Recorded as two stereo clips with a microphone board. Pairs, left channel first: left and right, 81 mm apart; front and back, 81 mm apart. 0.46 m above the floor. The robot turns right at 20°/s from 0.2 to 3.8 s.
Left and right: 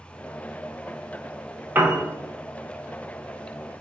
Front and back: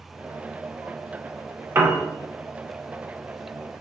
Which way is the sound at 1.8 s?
140° right.